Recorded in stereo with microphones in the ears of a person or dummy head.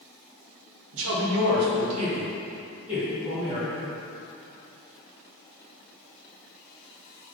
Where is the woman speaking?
85° right, 1.6 m; by 3.9 s 10° left (ahead or behind), 3 m.